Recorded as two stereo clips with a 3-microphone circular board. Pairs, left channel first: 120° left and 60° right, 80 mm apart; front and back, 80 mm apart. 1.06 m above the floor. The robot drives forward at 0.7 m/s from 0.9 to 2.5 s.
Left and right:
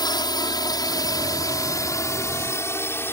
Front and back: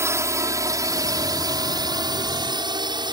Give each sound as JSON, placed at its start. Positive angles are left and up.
{"t": 0.0, "sound": "a drone", "azimuth_deg": 130}